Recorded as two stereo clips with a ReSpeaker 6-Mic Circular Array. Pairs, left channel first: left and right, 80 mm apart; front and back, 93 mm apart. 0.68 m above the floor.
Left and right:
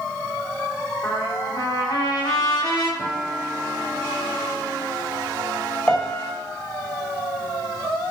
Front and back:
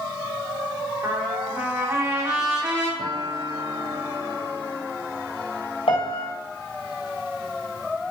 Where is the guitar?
175° right, 1.4 m.